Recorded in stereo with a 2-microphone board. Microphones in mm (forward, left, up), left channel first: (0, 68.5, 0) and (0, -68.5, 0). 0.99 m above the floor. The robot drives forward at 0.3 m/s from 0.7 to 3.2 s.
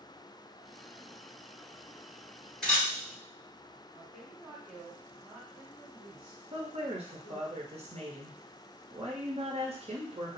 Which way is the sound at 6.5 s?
45° right (ahead or behind).